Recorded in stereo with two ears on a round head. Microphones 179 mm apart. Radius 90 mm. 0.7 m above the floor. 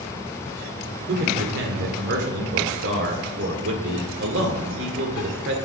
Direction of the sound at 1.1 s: 60° right (ahead or behind).